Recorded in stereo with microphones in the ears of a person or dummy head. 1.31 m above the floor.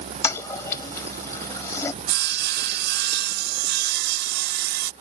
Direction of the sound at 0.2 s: 20° left (ahead or behind).